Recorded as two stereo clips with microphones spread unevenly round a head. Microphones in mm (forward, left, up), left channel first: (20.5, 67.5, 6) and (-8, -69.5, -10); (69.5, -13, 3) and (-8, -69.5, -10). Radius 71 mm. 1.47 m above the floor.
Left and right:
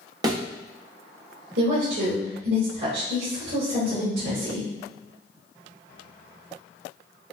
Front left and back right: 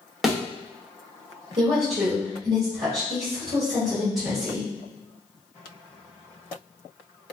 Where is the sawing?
No sawing in this recording.